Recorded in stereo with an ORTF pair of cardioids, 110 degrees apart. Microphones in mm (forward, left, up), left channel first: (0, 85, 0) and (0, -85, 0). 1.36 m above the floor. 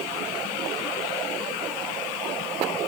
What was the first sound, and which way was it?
Only background noise.